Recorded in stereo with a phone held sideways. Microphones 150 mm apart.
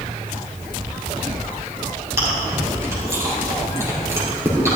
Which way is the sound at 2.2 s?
20° right (ahead or behind).